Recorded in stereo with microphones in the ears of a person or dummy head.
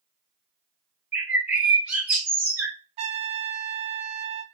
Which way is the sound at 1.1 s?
5° right (ahead or behind).